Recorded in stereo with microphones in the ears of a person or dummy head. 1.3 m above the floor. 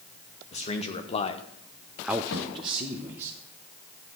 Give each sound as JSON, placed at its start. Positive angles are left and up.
{"t": 0.5, "sound": "a man speaking", "side_deg": 35, "distance_m": 2.0}
{"t": 2.3, "sound": "a snare drum", "side_deg": 85, "distance_m": 4.0}